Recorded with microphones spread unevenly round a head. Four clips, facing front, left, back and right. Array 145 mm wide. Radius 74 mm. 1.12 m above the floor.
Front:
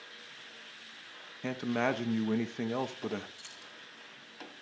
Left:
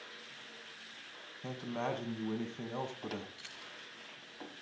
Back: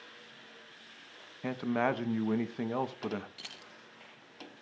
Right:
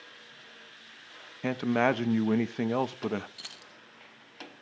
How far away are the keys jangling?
About 0.6 m.